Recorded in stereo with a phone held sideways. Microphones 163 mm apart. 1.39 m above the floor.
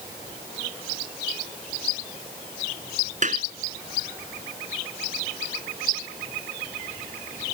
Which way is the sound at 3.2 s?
50° right (ahead or behind).